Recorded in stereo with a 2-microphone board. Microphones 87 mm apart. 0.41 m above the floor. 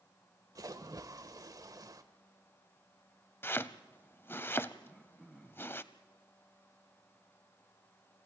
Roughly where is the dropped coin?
I don't hear a dropped coin.